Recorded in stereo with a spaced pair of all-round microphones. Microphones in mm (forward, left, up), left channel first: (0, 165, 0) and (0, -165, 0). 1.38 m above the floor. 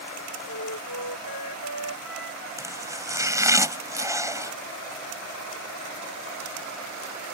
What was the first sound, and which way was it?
A flute, 65° left (ahead or behind).